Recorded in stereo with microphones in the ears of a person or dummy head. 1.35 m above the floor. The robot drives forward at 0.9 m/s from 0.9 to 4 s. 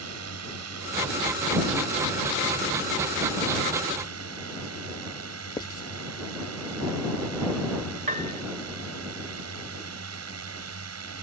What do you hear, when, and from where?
0.0 s a drone: 80° right; by 11.2 s 70° right (ahead or behind)
5.6 s writing: 20° left (ahead or behind)
8.1 s a piano: 50° right (ahead or behind)